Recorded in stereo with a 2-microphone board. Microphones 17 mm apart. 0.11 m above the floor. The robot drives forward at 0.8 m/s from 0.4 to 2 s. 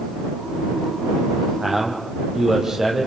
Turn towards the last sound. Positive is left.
turn(degrees=-25)  # may be behind; listen again after turning